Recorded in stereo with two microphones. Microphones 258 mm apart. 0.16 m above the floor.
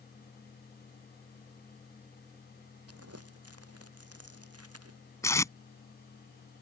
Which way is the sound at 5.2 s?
10° left (ahead or behind).